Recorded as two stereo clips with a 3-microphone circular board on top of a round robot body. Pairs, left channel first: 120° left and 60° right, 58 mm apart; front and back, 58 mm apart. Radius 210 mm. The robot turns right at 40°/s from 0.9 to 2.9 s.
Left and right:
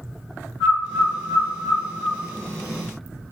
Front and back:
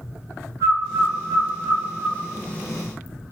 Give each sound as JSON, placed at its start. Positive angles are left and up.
{"t": 0.6, "sound": "a bird", "azimuth_deg": 145, "distance_m": 0.7}